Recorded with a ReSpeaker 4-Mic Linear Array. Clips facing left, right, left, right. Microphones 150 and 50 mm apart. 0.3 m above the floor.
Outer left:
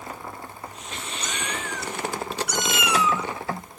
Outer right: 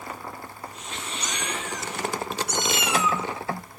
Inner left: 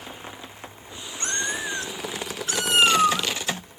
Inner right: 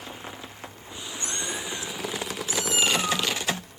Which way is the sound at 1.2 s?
50° left (ahead or behind).